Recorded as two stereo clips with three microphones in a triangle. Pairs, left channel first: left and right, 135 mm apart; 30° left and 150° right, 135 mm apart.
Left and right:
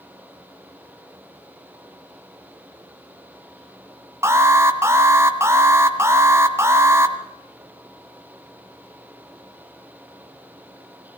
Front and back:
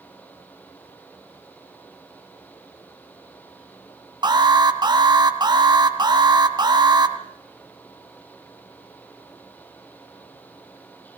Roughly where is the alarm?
Behind right.